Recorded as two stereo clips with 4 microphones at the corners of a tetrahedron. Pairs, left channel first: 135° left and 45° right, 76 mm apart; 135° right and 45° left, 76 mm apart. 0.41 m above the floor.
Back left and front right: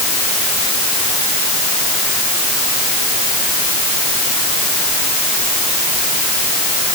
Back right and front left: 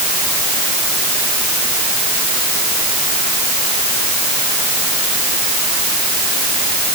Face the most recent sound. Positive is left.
No sound to turn to.